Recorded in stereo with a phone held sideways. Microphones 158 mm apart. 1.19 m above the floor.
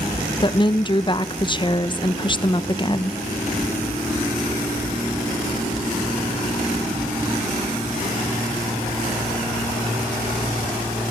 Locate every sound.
0.4 s a woman speaking: 30° left (ahead or behind), 0.9 m